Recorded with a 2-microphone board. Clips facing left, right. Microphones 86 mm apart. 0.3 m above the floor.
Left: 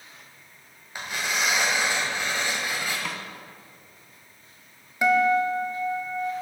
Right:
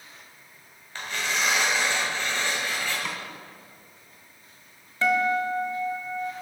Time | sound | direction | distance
0.9 | tearing paper | 15° left (ahead or behind) | 1.7 m
3.0 | a snare drum | 5° left (ahead or behind) | 0.8 m
5.0 | a guitar | 15° left (ahead or behind) | 0.7 m